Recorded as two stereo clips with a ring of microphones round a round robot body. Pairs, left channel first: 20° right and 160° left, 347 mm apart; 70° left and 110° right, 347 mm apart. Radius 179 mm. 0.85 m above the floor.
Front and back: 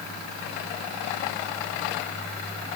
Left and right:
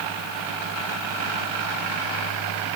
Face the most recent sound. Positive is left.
No sound to turn to.